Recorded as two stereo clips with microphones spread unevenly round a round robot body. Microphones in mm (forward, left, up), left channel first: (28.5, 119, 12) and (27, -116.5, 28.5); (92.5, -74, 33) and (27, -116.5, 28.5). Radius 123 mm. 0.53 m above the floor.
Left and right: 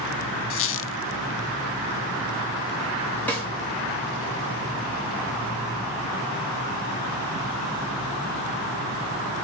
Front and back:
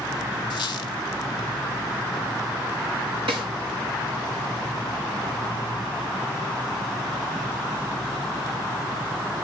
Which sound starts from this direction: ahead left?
A squeak, at 0.5 s.